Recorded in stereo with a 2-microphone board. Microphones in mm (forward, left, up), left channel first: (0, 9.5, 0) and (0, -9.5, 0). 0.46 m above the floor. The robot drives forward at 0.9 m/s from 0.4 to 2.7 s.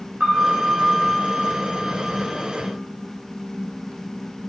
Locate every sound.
0.2 s a piano: 60° right (ahead or behind), 2 m; by 2.1 s 35° right (ahead or behind), 3 m